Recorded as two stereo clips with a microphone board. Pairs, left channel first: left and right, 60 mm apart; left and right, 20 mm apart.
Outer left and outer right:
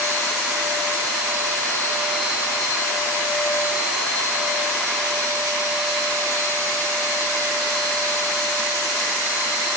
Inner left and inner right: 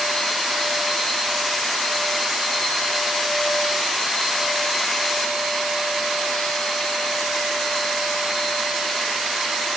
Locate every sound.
Only background noise.